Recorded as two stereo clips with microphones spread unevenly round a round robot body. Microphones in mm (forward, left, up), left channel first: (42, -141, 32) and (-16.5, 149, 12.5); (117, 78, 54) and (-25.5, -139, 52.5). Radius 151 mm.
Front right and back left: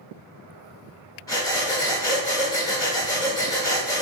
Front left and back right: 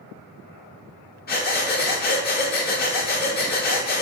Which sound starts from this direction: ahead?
Breathing, at 1.3 s.